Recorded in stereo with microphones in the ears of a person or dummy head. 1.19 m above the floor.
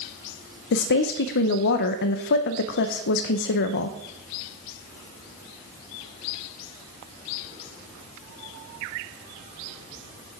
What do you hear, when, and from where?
0.7 s a woman speaking: 60° left (ahead or behind), 0.5 m